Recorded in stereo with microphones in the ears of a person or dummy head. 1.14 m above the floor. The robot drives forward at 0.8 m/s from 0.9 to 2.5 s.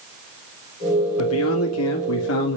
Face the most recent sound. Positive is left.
turn(degrees=65)  # may be behind; listen again after turning